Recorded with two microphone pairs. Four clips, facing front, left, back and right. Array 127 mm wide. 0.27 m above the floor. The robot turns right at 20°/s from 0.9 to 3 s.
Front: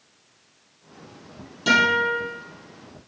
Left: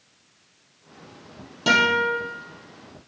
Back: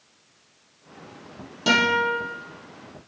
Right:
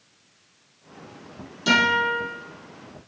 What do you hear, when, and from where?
1.7 s a guitar: 125° left, 2 m; by 2.2 s 135° left, 2 m